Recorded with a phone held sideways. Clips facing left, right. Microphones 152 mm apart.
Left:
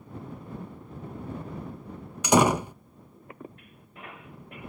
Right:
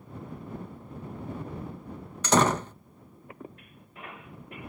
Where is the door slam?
10° left (ahead or behind).